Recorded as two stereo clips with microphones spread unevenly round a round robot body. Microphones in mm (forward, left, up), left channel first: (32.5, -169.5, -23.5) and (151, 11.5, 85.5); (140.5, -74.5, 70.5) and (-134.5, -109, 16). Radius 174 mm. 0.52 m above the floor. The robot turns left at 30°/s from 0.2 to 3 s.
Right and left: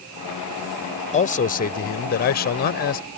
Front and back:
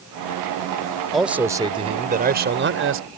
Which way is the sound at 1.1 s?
90° right.